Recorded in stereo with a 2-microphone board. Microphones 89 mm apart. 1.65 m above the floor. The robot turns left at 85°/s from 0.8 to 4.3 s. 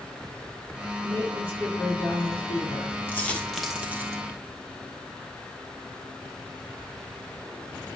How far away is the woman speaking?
About 5.5 m.